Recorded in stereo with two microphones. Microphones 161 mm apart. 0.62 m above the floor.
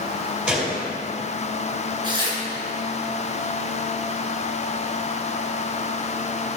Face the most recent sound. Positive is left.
turn(degrees=-25)  # may be behind; listen again after turning